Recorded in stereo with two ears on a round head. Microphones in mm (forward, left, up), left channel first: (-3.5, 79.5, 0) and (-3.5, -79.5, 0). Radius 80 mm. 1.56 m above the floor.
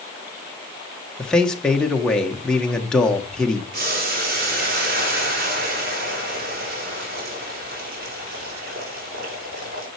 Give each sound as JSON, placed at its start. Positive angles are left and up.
{"t": 1.2, "sound": "a man speaking", "side_deg": 5, "distance_m": 1.7}
{"t": 3.7, "sound": "boiling", "side_deg": -55, "distance_m": 3.5}